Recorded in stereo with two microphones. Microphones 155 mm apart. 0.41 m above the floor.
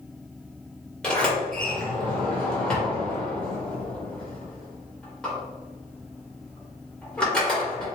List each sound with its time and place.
1.0 s a sliding door: 5° left (ahead or behind), 1.6 m